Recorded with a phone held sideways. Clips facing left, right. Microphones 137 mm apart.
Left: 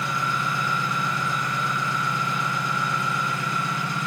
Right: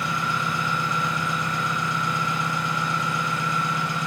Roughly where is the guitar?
No guitar in this recording.